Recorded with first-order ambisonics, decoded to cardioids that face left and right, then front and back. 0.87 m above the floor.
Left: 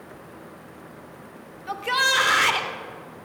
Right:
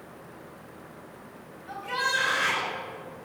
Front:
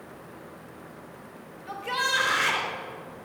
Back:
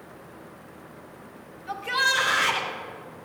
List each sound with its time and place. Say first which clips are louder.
1.7 s a shout: left 6 dB, back 3 dB; 90° left, 2.5 m